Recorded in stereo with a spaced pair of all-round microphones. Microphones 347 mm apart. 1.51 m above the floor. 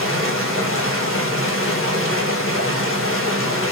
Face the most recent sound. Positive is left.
turn(degrees=35)  # may be behind; listen again after turning